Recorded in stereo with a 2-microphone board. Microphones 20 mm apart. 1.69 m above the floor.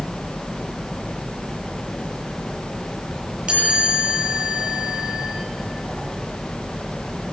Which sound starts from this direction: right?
A chime, at 3.5 s.